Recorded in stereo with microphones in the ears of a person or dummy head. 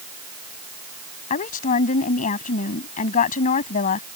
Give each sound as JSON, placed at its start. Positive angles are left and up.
{"t": 1.3, "sound": "a woman speaking", "side_deg": 40}